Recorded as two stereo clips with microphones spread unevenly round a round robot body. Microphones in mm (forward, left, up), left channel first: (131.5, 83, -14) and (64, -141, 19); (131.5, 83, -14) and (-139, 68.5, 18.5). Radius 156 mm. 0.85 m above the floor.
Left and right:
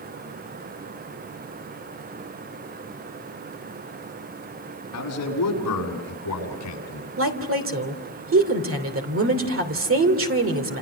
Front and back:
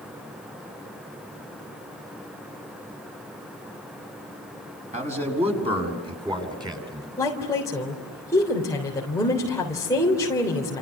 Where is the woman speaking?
80° right, 3 m.